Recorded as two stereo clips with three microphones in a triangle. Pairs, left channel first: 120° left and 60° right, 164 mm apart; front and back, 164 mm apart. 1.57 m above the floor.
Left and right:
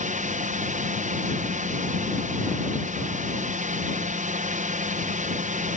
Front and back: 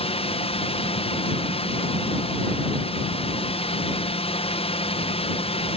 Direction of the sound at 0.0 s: 40° right.